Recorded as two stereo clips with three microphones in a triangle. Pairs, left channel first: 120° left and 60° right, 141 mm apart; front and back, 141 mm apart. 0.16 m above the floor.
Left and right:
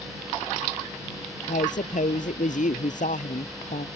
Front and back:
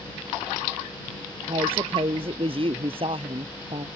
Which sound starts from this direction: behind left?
A woman speaking, at 1.5 s.